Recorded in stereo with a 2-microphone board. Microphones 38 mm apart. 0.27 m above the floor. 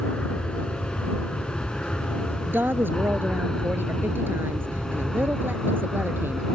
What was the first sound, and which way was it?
An aircraft, 25° left (ahead or behind).